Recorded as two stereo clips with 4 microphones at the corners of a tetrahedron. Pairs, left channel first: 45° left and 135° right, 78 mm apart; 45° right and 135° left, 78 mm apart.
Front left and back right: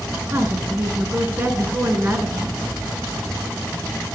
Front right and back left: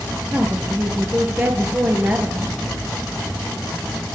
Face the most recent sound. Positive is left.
turn(degrees=-170)